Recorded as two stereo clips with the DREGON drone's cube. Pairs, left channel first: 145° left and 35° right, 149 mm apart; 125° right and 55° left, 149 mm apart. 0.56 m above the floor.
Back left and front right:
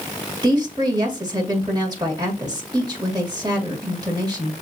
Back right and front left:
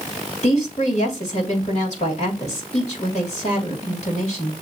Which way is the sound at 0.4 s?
90° right.